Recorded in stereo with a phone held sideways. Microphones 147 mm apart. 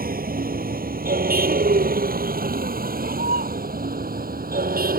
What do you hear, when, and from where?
0.0 s a vehicle: 85° right